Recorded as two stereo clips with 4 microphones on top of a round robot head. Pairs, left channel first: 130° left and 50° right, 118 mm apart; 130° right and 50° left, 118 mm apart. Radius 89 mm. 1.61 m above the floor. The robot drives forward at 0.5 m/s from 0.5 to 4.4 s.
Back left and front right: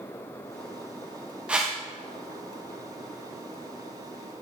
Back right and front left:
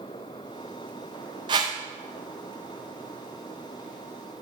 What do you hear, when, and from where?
1.5 s a whoosh: 25° left, 0.6 m; by 1.8 s 55° left, 0.5 m